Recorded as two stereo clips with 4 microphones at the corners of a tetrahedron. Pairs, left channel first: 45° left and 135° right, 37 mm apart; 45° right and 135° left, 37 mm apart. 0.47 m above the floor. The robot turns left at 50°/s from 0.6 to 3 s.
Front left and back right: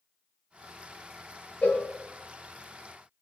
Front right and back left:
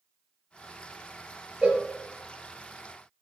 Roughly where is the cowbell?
Left.